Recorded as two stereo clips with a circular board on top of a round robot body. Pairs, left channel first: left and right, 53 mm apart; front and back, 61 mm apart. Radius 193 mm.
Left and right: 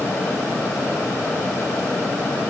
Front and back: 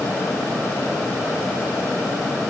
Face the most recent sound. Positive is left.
No sound to turn to.